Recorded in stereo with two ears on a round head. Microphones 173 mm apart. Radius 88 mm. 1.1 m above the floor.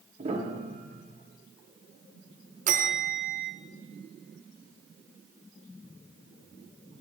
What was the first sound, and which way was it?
A piano, 35° right (ahead or behind).